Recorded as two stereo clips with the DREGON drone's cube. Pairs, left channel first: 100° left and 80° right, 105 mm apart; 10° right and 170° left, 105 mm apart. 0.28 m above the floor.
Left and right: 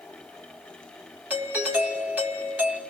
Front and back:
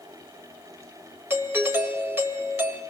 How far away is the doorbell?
About 1.9 m.